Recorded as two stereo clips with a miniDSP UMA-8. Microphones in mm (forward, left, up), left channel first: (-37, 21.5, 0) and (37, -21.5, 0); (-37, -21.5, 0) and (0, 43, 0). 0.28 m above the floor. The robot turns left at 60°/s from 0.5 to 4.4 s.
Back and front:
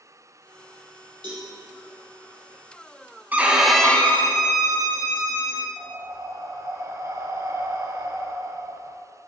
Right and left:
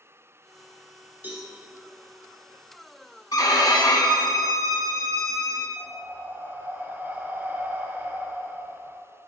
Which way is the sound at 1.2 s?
5° right.